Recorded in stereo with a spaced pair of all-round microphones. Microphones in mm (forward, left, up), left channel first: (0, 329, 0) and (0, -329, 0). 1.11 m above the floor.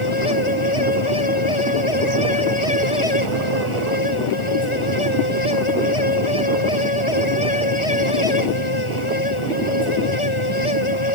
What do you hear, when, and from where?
0.0 s a fan: 45° left (ahead or behind)